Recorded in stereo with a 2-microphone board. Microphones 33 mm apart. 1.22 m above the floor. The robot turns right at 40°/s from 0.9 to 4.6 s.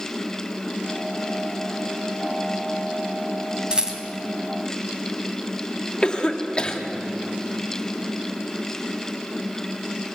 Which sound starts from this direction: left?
A cough, at 6.0 s.